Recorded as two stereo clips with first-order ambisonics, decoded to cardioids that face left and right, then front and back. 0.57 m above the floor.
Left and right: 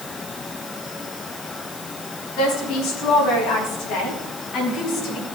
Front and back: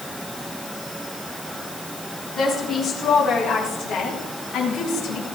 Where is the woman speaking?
70° left, 5 m; by 5.2 s 50° left, 3.5 m.